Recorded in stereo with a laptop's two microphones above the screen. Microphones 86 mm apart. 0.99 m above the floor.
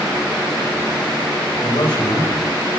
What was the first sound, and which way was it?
A man speaking, 70° left (ahead or behind).